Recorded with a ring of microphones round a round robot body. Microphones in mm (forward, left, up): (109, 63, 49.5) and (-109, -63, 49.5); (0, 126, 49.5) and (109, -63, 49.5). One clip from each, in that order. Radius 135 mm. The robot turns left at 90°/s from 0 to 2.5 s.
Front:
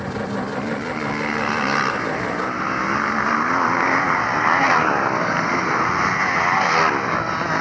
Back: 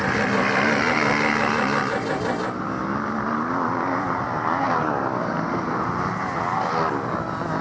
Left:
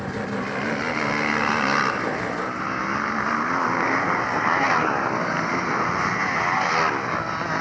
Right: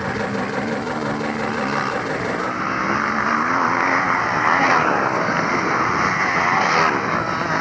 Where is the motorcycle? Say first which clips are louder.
Back 5 dB, right 5 dB; 115° right; by 7.6 s 20° left.